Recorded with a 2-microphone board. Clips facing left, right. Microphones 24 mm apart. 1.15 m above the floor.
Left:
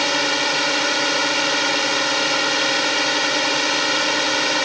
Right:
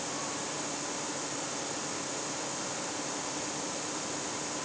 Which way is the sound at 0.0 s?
75° left (ahead or behind).